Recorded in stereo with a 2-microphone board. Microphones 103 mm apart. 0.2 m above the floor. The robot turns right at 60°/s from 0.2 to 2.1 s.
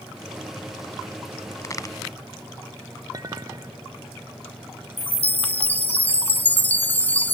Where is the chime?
15° left (ahead or behind).